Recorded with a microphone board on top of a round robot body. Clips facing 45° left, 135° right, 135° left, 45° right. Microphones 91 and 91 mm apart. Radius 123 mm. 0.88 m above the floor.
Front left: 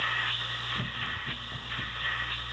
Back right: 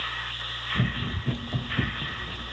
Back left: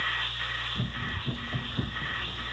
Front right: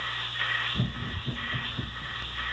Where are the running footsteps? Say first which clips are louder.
Back right 10 dB, front right 1 dB; 105° right; by 2.5 s 165° right.